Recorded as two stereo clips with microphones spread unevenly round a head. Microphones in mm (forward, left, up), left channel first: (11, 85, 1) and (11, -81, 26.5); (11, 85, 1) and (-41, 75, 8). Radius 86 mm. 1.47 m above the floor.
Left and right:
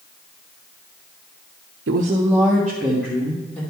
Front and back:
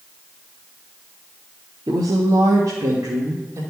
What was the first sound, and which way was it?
A woman speaking, 115° right.